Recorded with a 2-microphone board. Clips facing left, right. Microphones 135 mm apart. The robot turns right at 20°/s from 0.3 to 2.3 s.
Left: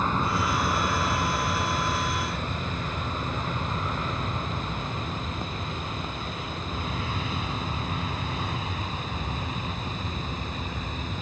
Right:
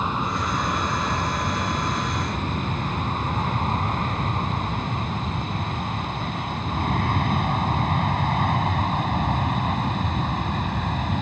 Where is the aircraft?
10° right (ahead or behind); by 11.2 s 60° right (ahead or behind).